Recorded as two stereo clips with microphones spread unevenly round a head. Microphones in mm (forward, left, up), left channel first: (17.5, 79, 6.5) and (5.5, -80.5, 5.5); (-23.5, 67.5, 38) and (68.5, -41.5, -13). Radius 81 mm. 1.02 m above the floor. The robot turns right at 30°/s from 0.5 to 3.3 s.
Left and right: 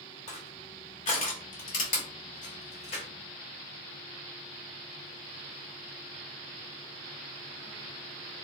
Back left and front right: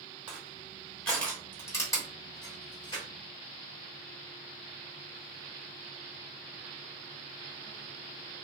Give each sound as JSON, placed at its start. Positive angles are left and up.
{"t": 0.3, "sound": "crushing", "azimuth_deg": 50, "distance_m": 0.9}